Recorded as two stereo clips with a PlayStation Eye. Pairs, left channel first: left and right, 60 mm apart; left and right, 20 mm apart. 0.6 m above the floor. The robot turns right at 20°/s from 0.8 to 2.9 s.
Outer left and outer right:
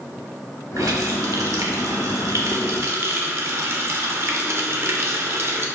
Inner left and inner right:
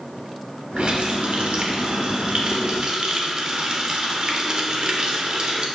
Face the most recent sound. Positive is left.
turn(degrees=-55)